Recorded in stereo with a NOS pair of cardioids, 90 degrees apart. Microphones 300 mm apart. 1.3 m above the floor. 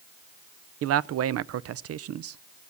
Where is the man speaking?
50° right, 0.6 m.